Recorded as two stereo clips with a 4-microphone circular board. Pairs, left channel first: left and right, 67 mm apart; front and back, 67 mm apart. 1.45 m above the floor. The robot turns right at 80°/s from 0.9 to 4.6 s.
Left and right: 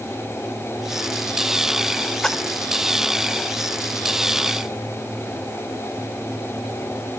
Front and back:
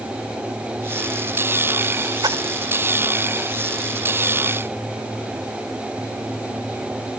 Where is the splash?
165° left, 0.7 m; by 2.5 s 175° right, 0.7 m.